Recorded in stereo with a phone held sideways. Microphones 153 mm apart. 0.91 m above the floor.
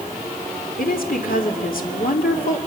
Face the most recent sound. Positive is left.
turn(degrees=70)  # may be behind; listen again after turning